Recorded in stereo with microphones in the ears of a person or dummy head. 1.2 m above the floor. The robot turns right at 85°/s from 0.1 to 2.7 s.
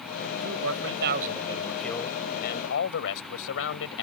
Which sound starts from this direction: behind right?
A man speaking, at 0.4 s.